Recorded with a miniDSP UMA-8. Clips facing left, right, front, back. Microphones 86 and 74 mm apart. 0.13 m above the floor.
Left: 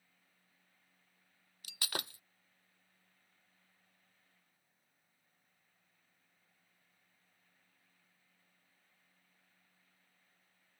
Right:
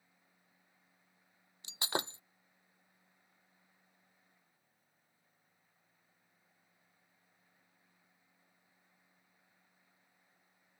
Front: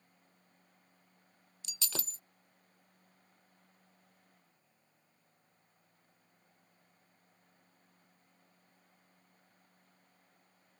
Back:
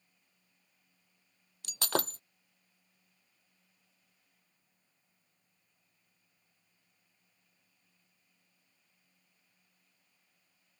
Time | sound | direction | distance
1.6 | breaking glass | 155° right | ?